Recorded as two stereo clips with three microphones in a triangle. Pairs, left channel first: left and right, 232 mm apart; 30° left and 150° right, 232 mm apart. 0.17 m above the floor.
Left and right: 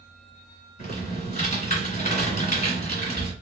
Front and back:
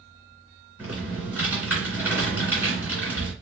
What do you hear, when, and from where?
0.8 s typing on a keyboard: 130° left, 2.5 m